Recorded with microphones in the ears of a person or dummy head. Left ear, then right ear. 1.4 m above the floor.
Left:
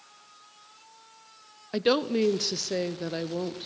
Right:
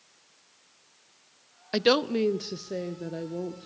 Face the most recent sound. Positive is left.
turn(degrees=50)  # may be behind; listen again after turning